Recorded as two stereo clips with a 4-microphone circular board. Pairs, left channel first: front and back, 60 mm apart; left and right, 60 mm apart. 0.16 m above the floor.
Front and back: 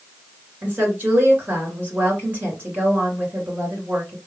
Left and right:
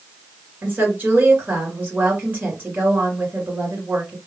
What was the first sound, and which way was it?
A woman speaking, 130° right.